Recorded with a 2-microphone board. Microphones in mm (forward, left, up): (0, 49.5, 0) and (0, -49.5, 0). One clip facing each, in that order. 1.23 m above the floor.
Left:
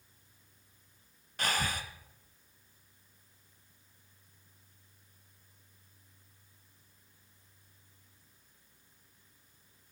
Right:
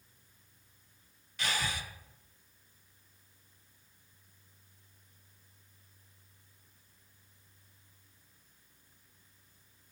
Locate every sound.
1.4 s breathing: 45° left (ahead or behind), 0.8 m